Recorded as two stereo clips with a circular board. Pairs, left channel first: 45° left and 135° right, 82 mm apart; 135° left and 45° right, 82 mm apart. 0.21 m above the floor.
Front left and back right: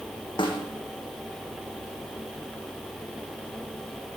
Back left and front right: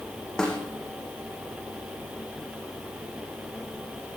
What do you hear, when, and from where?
0.4 s a snare drum: 55° left, 5.5 m